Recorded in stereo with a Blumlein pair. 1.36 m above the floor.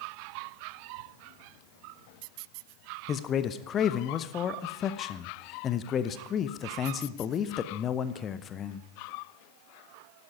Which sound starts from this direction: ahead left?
A man speaking, at 3.1 s.